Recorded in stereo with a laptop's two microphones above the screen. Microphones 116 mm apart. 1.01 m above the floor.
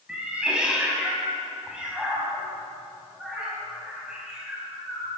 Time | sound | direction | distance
0.1 | a cat meowing | 10° right (ahead or behind) | 4.5 m